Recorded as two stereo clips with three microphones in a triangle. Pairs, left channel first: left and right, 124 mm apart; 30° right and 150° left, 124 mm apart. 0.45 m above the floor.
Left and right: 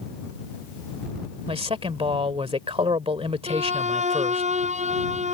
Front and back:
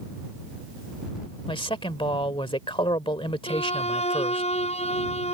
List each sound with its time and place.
1.5 s a man speaking: 65° right
3.5 s a violin: 65° right